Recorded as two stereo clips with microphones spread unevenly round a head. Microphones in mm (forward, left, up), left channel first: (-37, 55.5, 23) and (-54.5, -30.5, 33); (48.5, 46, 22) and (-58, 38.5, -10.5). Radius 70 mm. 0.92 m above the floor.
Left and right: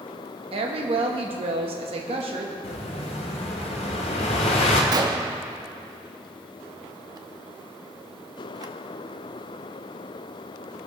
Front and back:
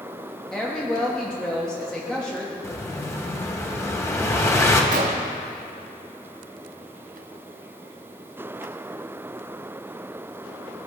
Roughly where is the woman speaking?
Right.